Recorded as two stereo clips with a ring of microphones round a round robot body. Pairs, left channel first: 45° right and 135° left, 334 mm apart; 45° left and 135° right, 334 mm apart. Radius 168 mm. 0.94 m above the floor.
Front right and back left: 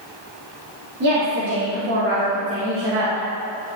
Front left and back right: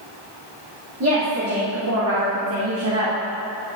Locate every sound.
1.0 s a woman speaking: straight behind, 2.5 m; by 3.1 s 175° right, 1.4 m